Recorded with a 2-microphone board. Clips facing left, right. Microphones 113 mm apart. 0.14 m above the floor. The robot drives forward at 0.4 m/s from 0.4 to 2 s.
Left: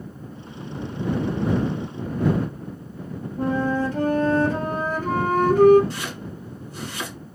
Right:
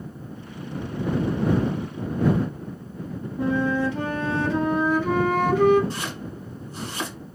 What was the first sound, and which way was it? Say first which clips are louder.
A flute: even; 45° left (ahead or behind).